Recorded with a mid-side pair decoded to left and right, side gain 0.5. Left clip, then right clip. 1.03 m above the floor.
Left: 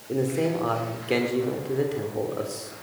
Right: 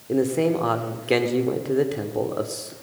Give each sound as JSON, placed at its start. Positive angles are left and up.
{"t": 0.1, "sound": "a man speaking", "azimuth_deg": -25, "distance_m": 3.0}